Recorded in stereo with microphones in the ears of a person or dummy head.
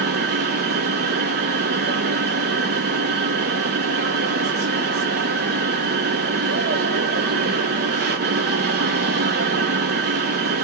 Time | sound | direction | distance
0.0 | a machine running | 55° right (ahead or behind) | 0.8 m